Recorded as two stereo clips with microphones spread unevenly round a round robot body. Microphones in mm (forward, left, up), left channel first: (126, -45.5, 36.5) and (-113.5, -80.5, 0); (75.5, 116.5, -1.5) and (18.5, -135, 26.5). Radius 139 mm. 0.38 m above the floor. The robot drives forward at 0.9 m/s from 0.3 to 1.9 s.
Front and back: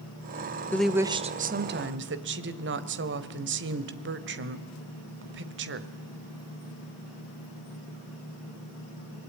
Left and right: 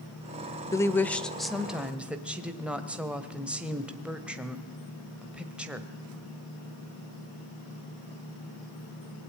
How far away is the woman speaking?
About 0.8 m.